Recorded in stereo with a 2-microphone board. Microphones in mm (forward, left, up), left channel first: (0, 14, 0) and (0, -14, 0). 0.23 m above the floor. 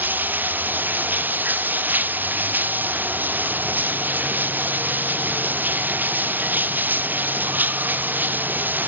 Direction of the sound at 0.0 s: 85° right.